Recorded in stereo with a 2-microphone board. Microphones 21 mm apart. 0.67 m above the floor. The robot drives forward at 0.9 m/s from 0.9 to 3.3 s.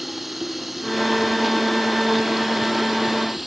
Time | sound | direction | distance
0.0 | running water | 10° right (ahead or behind) | ?